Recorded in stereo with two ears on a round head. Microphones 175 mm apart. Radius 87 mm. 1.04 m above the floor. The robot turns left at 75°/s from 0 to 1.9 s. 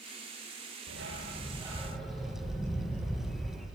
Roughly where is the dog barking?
Right.